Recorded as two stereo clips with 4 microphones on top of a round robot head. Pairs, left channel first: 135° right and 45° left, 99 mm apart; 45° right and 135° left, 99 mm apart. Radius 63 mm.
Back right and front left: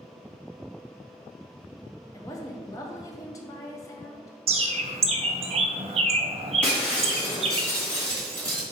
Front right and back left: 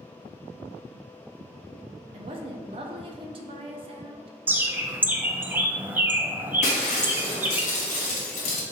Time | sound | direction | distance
2.1 | a woman speaking | 170° left | 0.6 m
4.5 | a bird | 60° left | 0.5 m
6.6 | breaking glass | 55° right | 1.2 m